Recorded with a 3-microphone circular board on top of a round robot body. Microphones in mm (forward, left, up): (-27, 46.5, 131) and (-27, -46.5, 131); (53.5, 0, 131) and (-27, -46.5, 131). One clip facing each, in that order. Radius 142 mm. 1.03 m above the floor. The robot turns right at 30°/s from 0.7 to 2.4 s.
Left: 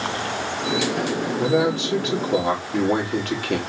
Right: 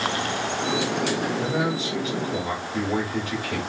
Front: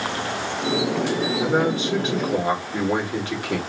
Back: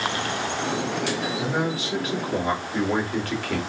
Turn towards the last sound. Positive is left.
turn(degrees=105)